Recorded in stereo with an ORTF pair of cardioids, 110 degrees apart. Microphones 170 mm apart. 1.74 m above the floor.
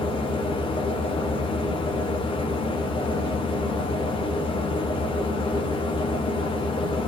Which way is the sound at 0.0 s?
30° left.